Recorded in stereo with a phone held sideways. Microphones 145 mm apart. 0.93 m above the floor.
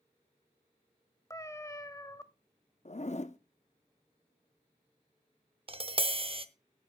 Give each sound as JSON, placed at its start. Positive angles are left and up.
{"t": 1.3, "sound": "a cat meowing", "side_deg": 25, "distance_m": 0.7}
{"t": 2.9, "sound": "a zipper", "side_deg": 50, "distance_m": 0.6}
{"t": 5.7, "sound": "tapping", "side_deg": -40, "distance_m": 0.6}